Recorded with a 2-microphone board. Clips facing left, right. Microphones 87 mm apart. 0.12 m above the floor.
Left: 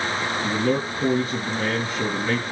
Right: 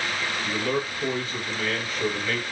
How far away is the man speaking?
About 2.5 m.